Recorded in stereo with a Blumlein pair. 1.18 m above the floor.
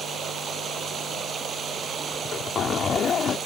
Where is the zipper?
20° left.